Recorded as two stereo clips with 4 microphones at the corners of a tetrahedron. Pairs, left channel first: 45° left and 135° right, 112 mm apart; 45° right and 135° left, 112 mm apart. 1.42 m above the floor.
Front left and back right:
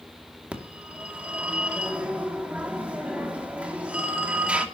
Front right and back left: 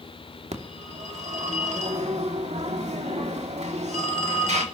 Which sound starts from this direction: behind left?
A phone ringing, at 0.5 s.